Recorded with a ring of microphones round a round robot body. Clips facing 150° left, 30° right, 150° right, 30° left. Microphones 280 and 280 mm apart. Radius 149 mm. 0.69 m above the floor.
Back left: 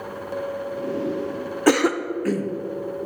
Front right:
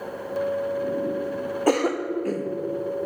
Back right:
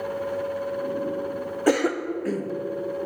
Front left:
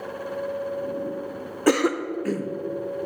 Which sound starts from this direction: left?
A cough, at 1.7 s.